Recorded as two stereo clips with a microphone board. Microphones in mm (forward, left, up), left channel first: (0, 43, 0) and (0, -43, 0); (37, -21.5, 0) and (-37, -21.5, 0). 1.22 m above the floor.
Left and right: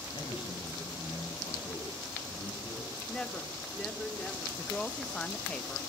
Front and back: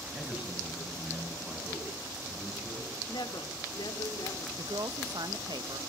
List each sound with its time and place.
0.1 s a man speaking: 110° left, 8 m; by 3.0 s 90° left, 10 m
3.1 s a woman speaking: 10° left, 4 m
4.6 s a woman speaking: 170° left, 1.5 m